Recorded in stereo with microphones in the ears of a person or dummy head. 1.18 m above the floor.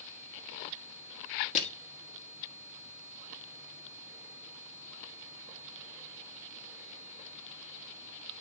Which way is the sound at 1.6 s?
35° left (ahead or behind).